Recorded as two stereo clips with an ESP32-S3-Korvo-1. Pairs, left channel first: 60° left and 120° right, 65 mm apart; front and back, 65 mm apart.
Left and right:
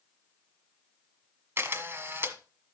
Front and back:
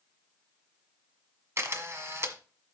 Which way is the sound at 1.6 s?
160° right.